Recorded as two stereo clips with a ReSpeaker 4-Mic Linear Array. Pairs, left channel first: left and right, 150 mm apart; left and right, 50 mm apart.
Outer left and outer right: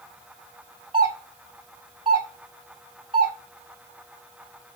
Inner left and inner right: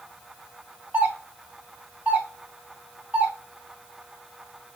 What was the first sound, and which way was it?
A doorbell, 35° right (ahead or behind).